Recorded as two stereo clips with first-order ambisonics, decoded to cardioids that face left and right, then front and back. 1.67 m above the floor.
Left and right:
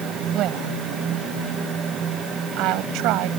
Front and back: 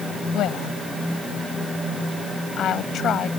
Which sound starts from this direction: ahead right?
A woman speaking, at 0.3 s.